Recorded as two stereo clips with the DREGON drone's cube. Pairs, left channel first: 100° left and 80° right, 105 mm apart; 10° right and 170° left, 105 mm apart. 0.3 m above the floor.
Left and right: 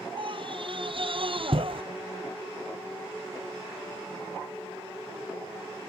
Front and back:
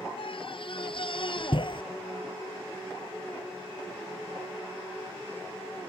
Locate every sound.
0.2 s a scream: 45° right; by 1.8 s 50° right